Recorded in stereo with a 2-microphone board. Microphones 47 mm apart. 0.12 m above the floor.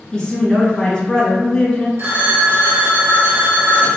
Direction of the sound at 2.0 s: 55° right (ahead or behind).